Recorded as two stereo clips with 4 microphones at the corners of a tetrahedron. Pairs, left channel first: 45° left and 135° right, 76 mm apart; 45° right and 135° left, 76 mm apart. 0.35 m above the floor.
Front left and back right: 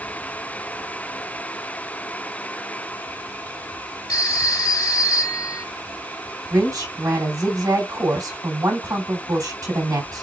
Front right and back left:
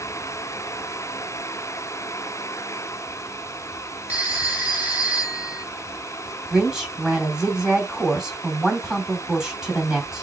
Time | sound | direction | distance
4.1 | a phone ringing | 65° left | 2 m
6.5 | a woman speaking | 145° right | 2.0 m